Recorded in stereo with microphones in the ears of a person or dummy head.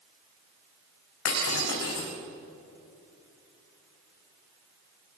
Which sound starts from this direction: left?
Breaking glass, at 1.2 s.